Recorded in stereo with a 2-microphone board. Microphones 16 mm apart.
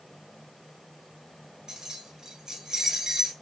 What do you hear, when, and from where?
1.7 s keys jangling: 35° right (ahead or behind), 1.7 m